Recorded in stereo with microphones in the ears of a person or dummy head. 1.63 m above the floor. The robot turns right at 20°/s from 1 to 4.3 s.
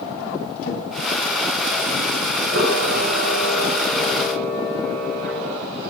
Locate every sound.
0.6 s a drawer: 50° left (ahead or behind), 4 m
2.5 s a camera shutter: 85° right, 8 m; by 5.6 s 50° right, 8 m